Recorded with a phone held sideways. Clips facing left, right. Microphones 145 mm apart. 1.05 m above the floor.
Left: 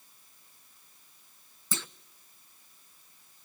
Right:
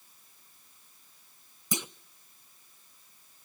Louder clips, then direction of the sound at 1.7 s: Right 4 dB; 15° right (ahead or behind).